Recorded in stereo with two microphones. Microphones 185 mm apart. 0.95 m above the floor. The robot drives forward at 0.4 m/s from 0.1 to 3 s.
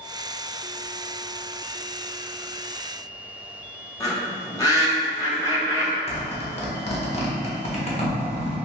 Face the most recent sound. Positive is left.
turn(degrees=35)  # may be behind; listen again after turning